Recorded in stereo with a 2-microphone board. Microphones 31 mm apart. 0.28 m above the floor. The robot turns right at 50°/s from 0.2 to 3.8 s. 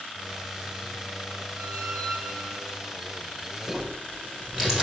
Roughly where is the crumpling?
Centre.